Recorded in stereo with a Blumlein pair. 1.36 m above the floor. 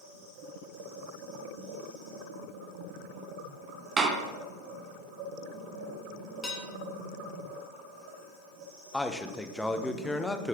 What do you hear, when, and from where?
4.0 s a door slam: 20° right, 0.9 m
6.4 s dishes clattering: 10° left, 1.7 m
8.9 s a man speaking: 5° left, 0.7 m